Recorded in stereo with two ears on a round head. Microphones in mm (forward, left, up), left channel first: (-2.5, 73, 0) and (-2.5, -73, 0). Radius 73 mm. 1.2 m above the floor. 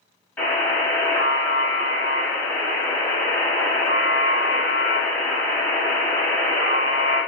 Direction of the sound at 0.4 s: 10° left (ahead or behind).